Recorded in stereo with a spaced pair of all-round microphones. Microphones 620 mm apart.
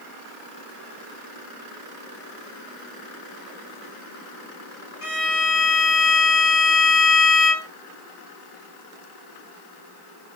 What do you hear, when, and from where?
5.0 s a violin: 55° left (ahead or behind), 1.2 m